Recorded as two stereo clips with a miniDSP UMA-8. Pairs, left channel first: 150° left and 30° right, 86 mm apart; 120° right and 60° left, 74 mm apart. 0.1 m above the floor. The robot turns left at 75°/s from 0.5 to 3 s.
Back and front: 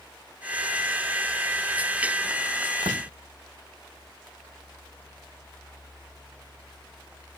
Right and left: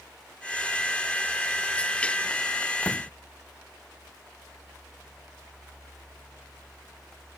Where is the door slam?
45° right; by 3.1 s 55° right.